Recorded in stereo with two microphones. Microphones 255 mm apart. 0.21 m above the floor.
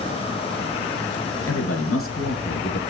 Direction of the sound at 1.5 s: 65° left (ahead or behind).